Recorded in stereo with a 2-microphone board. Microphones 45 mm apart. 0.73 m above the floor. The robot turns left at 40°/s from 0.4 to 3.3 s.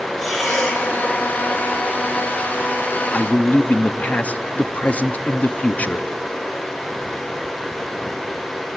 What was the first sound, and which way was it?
Breathing, 5° left (ahead or behind).